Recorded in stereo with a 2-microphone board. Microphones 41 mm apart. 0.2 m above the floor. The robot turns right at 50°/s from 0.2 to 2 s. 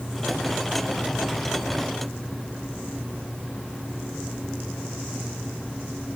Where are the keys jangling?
I don't hear keys jangling.